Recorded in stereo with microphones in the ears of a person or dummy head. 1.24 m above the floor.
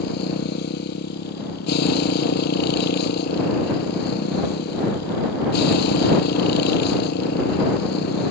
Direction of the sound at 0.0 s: 55° left (ahead or behind).